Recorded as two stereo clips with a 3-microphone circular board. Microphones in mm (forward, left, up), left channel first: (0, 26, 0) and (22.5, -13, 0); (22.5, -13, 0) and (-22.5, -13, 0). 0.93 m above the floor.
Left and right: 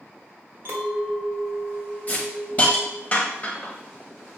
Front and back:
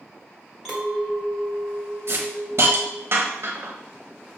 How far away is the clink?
About 1.5 m.